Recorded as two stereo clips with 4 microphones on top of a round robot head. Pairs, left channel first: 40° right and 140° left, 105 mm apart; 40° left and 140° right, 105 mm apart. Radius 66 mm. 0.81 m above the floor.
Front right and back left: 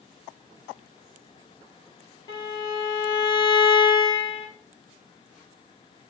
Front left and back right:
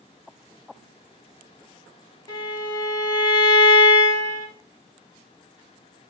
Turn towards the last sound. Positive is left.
turn(degrees=-5)